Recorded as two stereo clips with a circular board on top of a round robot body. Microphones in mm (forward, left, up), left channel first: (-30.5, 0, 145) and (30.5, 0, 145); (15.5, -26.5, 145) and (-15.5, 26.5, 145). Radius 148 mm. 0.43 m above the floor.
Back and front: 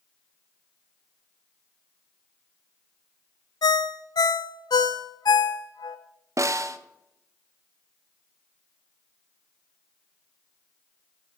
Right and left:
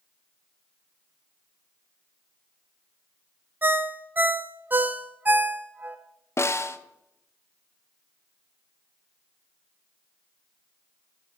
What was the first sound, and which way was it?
A ringtone, straight behind.